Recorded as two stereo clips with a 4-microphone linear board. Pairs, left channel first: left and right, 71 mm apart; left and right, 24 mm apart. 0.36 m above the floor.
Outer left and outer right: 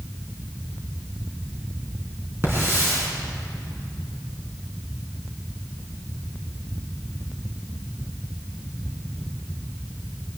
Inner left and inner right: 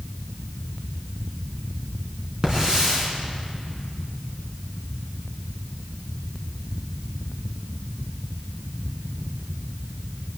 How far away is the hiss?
About 4 m.